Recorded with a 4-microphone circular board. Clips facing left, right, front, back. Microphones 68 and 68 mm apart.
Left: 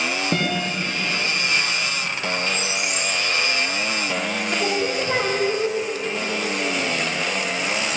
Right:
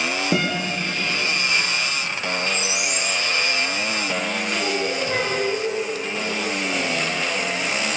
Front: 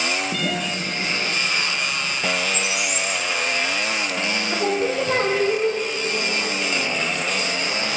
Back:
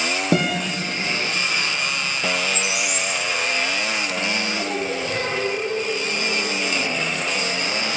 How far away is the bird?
About 8.5 m.